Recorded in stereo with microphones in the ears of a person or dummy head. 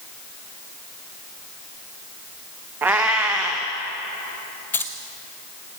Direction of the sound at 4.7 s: 10° left (ahead or behind).